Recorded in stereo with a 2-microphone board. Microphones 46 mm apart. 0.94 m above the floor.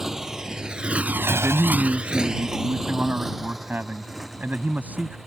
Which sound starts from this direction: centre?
A motorcycle, at 0.0 s.